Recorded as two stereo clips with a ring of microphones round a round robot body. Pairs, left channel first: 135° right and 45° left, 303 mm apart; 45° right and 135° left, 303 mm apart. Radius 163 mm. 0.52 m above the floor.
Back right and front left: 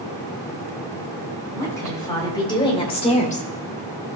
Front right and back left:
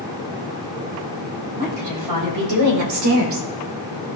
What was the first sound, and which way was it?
A woman speaking, 145° left.